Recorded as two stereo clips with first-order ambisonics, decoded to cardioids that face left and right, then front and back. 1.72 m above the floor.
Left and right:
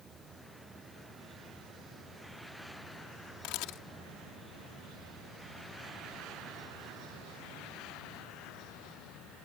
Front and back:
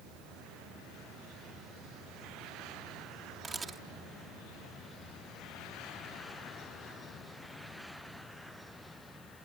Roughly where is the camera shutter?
Left.